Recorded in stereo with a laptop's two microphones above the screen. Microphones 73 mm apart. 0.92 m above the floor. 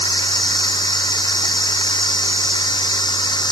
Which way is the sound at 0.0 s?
75° left (ahead or behind).